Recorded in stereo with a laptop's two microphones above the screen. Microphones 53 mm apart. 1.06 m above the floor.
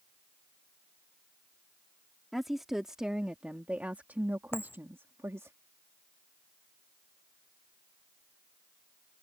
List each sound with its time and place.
2.3 s a woman speaking: 5° right (ahead or behind); by 5.5 s 65° right (ahead or behind)
4.5 s a dropped coin: 45° left (ahead or behind)